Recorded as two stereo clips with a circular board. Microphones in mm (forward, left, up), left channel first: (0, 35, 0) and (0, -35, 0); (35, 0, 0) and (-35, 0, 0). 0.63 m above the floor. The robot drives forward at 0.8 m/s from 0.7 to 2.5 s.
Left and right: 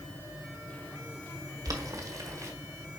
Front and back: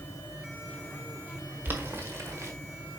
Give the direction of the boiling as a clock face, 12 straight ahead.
4 o'clock.